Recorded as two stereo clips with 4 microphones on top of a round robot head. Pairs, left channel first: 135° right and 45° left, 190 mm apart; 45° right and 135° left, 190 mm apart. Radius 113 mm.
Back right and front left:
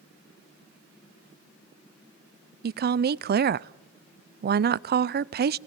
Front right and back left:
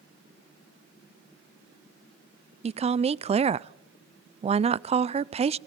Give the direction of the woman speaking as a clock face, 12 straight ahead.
9 o'clock.